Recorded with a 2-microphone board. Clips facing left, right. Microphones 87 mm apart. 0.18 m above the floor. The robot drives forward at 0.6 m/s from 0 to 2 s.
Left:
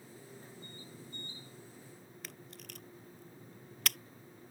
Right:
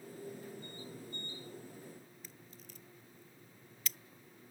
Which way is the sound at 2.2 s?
75° left (ahead or behind).